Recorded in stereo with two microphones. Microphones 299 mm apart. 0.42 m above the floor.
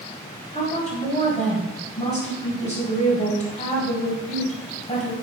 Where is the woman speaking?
25° left (ahead or behind), 2.0 m.